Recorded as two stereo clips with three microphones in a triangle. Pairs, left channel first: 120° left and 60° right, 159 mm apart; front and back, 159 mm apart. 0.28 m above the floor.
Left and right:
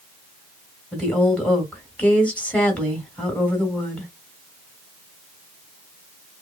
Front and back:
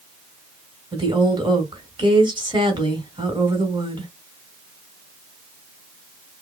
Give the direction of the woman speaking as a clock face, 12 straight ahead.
6 o'clock.